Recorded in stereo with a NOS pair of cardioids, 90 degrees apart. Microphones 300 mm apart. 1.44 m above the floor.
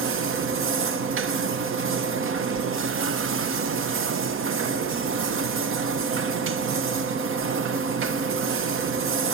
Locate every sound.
0.0 s a machine running: 45° right, 1.0 m